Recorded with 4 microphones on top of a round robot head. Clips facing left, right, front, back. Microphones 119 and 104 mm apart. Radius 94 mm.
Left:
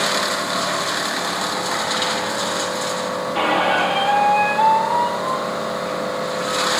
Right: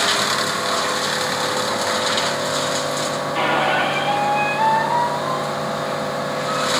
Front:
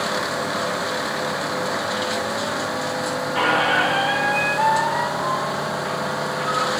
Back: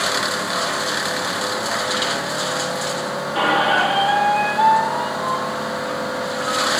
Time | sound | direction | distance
3.4 | a squeak | 120° left | 0.7 m